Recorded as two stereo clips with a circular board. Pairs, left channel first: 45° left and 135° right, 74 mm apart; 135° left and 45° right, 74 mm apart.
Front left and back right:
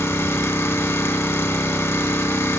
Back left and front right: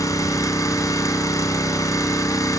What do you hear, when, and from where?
0.0 s an engine running: 95° left, 3 m